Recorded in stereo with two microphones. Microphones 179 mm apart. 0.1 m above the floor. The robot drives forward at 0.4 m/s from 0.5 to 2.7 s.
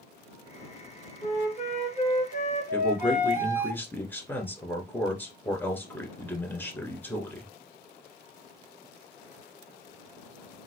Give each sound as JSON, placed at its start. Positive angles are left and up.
{"t": 1.2, "sound": "a flute", "side_deg": 40, "distance_m": 2.5}
{"t": 2.7, "sound": "a man speaking", "side_deg": 10, "distance_m": 1.1}